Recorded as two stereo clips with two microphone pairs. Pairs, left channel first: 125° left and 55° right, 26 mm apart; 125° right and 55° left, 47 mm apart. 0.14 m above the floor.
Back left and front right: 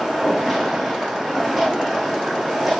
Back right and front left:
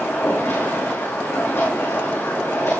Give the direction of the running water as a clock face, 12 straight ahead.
5 o'clock.